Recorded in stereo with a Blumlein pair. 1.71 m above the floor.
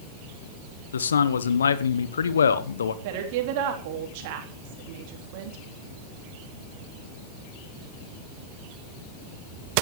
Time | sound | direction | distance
0.9 | a man speaking | 70° left | 1.4 m
3.0 | a woman speaking | 50° right | 3.5 m